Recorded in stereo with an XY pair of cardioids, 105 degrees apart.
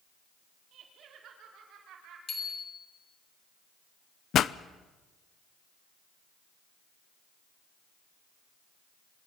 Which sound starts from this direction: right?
Laughter, at 0.7 s.